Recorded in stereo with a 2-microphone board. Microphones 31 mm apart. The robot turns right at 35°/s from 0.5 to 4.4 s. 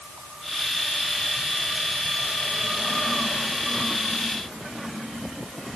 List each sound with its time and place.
Only background noise.